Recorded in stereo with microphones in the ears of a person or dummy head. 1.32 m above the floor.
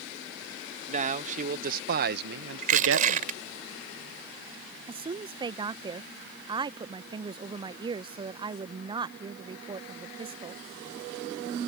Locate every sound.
0.9 s a man speaking: 40° right (ahead or behind); by 3.3 s 50° right (ahead or behind)
2.6 s crushing: 40° right (ahead or behind)
4.9 s a woman speaking: 20° right (ahead or behind)